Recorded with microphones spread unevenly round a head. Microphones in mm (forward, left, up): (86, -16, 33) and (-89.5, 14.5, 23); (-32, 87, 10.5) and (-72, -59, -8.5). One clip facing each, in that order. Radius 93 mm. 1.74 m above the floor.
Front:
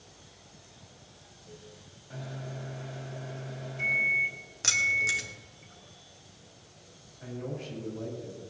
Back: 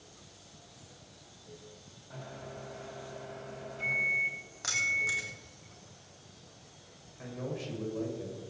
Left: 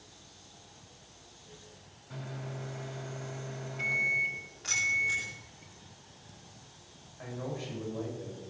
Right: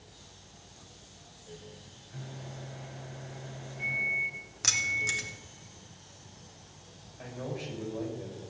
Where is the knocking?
I don't hear knocking.